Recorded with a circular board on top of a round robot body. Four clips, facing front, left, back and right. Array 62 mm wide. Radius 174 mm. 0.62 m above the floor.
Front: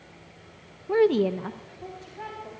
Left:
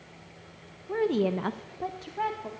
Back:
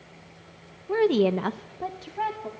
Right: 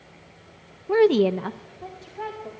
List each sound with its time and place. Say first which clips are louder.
0.9 s a woman speaking: right 8 dB, even; 80° right, 0.6 m; by 2.5 s 140° left, 1.5 m